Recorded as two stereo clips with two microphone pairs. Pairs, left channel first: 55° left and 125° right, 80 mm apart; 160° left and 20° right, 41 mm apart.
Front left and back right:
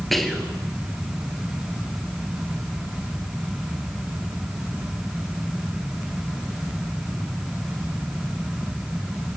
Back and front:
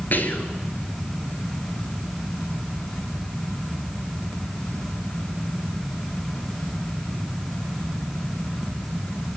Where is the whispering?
145° left, 2.5 m.